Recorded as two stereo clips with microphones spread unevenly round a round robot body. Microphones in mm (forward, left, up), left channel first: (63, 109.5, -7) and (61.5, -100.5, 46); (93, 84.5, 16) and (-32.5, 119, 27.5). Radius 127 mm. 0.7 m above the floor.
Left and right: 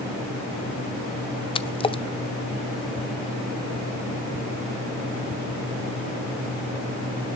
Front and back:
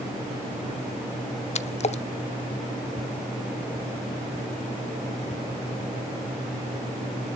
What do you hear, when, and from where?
1.6 s a splash: 25° left, 0.7 m